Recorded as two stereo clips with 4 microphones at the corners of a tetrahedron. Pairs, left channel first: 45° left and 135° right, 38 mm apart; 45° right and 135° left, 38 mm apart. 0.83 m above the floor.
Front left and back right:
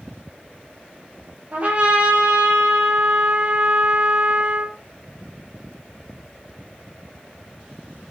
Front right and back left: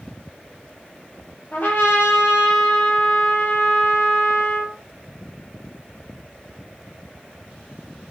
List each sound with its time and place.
1.5 s a trumpet: 80° right, 6 m